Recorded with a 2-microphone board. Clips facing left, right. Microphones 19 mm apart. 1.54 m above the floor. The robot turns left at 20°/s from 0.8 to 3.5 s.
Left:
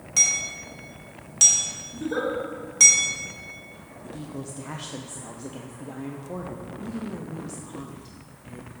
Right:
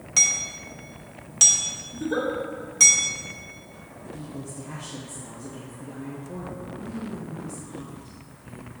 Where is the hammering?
10° right (ahead or behind), 1.2 m; by 2.9 s 10° left (ahead or behind), 1.2 m.